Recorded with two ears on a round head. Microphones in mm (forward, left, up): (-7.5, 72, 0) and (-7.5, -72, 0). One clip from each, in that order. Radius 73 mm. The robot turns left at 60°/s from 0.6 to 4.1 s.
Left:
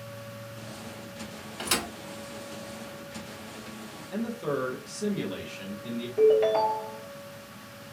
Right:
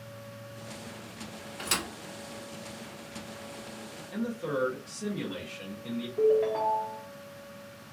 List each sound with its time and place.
1.6 s a thud: centre (ahead or behind), 1.0 m; by 1.9 s 10° right (ahead or behind), 1.0 m
4.1 s a man speaking: 10° left (ahead or behind), 0.8 m
6.2 s a ringtone: 55° left (ahead or behind), 1.0 m